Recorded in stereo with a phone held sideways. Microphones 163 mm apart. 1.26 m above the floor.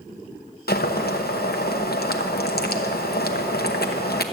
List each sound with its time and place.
0.7 s boiling: 75° left (ahead or behind), 0.9 m